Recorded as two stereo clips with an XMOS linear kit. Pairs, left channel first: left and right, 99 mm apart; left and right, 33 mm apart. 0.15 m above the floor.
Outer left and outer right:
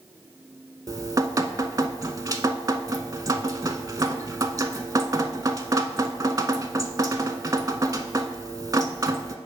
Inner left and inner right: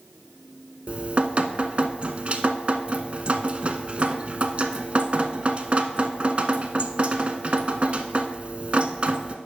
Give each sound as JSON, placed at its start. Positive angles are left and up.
{"t": 0.9, "sound": "dripping", "side_deg": -40, "distance_m": 0.5}